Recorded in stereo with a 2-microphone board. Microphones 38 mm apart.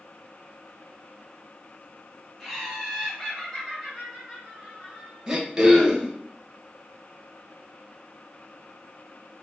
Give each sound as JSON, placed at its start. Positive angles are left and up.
{"t": 2.4, "sound": "laughter", "side_deg": 5, "distance_m": 1.5}
{"t": 5.3, "sound": "throat clearing", "side_deg": -15, "distance_m": 0.8}